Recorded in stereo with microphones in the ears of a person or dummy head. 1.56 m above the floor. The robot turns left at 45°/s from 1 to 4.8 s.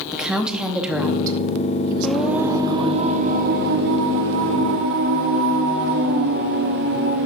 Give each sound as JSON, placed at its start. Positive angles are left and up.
{"t": 0.1, "sound": "a woman speaking", "azimuth_deg": -5, "distance_m": 0.9}
{"t": 2.0, "sound": "singing", "azimuth_deg": 5, "distance_m": 0.5}